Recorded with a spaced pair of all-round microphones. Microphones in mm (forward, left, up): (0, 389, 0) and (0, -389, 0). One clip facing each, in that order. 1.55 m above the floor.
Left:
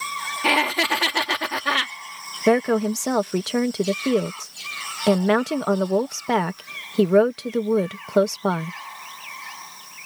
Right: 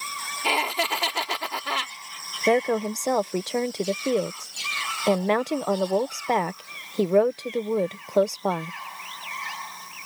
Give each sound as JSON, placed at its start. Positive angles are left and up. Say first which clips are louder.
{"t": 0.4, "sound": "laughter", "louder": "left 5 dB", "side_deg": 80}
{"t": 2.5, "sound": "a woman speaking", "louder": "left 4 dB", "side_deg": 50}